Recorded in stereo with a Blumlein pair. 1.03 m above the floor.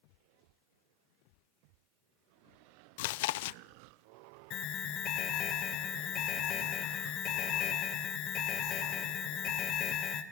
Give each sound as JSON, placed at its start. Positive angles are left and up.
{"t": 3.0, "sound": "chewing", "azimuth_deg": 50, "distance_m": 0.5}
{"t": 4.5, "sound": "an alarm", "azimuth_deg": 35, "distance_m": 2.5}